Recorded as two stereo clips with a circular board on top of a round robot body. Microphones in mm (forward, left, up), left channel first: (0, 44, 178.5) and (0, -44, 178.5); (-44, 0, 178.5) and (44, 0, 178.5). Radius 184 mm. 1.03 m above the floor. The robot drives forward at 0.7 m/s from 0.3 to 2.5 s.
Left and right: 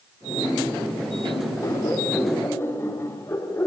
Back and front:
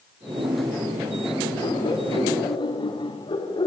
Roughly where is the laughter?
Behind left.